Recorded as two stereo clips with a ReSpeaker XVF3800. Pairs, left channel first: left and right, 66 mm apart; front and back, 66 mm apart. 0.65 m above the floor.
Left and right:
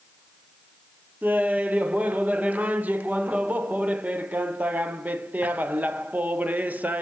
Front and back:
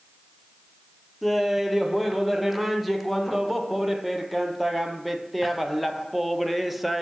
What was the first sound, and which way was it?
Laughter, 95° right.